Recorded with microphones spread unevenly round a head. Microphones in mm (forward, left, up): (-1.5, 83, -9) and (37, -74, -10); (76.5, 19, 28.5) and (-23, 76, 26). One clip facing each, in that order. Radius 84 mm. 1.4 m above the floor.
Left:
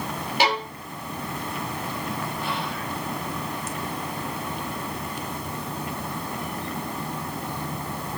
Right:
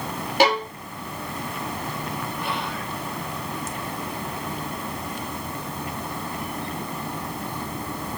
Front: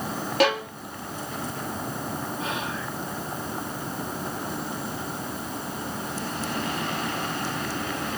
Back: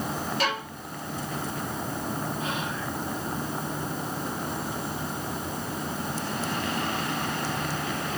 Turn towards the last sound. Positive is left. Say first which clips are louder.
# even, even
turn(degrees=-35)